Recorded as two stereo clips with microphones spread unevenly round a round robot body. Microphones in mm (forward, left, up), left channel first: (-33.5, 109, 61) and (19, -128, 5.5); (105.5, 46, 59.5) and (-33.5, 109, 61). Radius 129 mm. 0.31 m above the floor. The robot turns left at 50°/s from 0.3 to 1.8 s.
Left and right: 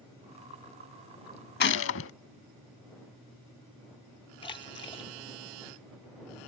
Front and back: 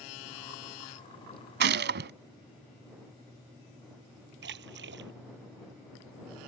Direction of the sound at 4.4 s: 175° left.